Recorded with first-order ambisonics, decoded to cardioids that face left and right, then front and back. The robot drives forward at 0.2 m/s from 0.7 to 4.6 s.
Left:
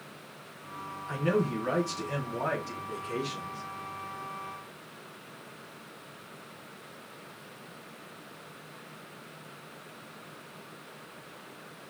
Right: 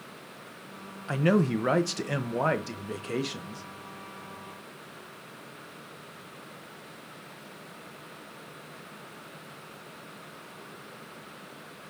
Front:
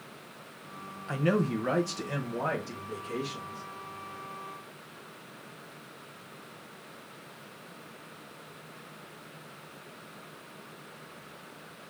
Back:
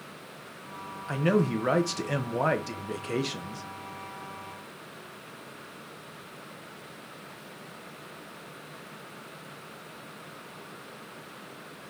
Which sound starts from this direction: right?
A man speaking, at 1.1 s.